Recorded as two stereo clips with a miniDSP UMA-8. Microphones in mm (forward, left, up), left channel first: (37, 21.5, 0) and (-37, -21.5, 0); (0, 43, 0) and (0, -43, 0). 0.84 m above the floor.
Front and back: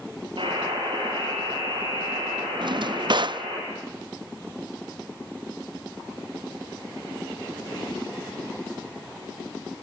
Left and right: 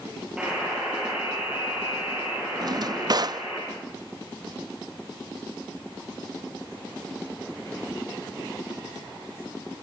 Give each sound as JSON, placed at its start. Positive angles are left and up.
{"t": 0.4, "sound": "a buzzer", "azimuth_deg": -170, "distance_m": 9.5}
{"t": 2.6, "sound": "a drawer", "azimuth_deg": -125, "distance_m": 0.5}